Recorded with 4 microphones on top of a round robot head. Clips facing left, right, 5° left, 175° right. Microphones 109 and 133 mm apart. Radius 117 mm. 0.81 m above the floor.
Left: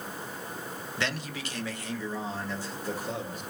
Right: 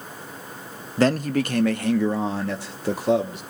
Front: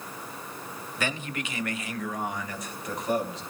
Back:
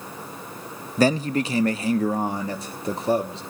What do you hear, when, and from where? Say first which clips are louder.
1.0 s a man speaking: right 15 dB, back 13 dB; 130° right, 0.6 m; by 3.4 s 110° right, 2.0 m